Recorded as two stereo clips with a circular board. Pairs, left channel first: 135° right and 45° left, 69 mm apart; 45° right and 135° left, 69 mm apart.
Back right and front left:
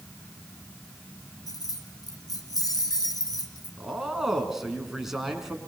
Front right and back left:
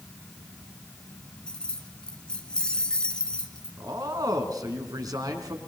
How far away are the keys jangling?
About 2 m.